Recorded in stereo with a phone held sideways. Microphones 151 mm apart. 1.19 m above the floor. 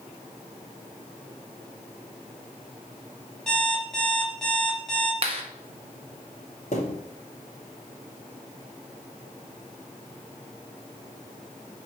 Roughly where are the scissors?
I don't hear scissors.